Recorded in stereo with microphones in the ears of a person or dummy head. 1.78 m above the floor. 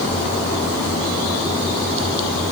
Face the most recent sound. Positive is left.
No sound to turn to.